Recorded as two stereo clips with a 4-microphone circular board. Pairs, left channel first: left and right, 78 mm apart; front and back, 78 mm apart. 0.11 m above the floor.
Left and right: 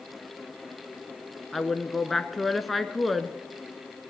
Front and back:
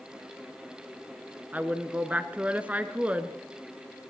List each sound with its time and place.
1.5 s a woman speaking: straight behind, 1.1 m